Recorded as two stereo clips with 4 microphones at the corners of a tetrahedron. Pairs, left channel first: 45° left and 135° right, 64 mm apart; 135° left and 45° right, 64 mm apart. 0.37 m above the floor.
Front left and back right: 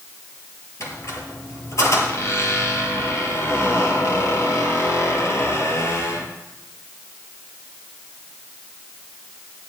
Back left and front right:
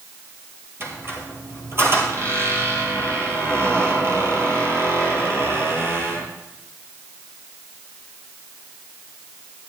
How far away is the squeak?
About 2 m.